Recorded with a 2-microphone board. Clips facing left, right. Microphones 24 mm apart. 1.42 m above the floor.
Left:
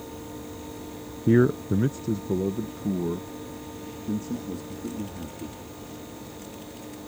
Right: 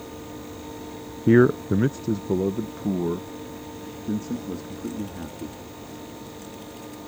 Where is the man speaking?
25° right (ahead or behind); by 5.6 s 20° right (ahead or behind).